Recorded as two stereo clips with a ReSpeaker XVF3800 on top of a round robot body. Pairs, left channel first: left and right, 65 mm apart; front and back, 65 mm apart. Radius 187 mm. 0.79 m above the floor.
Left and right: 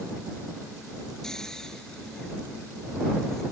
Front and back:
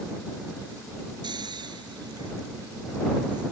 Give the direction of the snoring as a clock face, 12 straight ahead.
6 o'clock.